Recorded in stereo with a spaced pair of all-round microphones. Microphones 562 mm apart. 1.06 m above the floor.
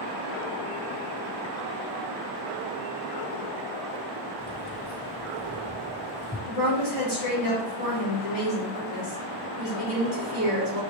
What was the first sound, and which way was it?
Keys jangling, centre (ahead or behind).